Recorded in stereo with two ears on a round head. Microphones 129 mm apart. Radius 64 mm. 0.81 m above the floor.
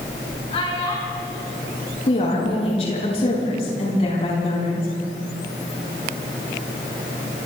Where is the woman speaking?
45° left (ahead or behind), 9.5 m.